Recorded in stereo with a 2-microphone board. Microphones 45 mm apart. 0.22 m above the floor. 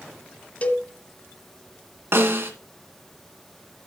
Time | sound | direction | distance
0.6 | a cowbell | 35° left (ahead or behind) | 1.1 m
2.1 | a snare drum | 60° right (ahead or behind) | 2.5 m